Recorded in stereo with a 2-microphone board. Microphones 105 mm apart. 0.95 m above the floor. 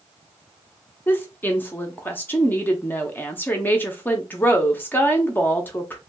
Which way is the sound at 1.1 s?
20° left (ahead or behind).